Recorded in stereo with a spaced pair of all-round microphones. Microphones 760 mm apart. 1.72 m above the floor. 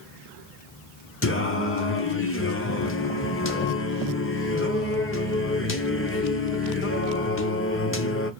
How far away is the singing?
About 0.6 m.